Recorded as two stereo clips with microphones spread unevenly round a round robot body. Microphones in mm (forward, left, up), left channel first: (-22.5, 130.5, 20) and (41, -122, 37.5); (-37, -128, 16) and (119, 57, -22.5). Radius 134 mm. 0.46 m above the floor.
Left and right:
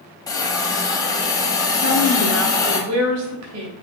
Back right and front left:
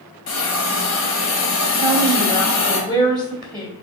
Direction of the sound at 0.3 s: Straight behind.